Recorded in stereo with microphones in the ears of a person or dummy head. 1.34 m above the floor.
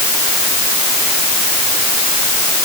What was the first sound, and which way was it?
Only background noise.